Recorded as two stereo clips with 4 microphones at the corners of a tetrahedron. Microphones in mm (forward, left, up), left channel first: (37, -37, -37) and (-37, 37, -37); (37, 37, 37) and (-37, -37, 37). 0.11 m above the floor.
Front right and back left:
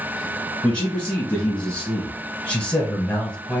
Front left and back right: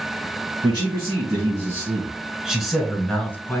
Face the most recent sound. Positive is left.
turn(degrees=25)